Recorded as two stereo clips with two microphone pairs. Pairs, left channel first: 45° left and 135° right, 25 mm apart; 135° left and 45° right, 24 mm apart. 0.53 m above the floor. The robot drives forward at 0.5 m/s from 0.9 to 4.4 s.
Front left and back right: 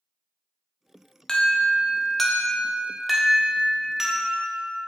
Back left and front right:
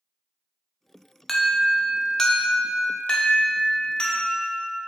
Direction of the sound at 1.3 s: 60° left.